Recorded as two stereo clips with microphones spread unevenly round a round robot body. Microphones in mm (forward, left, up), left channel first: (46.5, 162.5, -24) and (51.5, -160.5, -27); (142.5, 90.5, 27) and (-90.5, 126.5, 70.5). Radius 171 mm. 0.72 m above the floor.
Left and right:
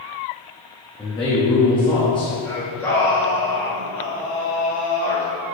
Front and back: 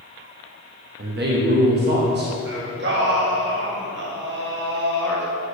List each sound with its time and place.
1.0 s a man speaking: 155° left, 0.8 m
2.5 s singing: 170° left, 1.3 m